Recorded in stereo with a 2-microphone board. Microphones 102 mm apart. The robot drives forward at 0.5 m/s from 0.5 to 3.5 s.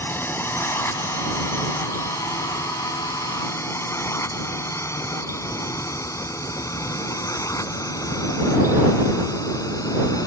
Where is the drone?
20° left (ahead or behind); by 10.3 s 35° left (ahead or behind).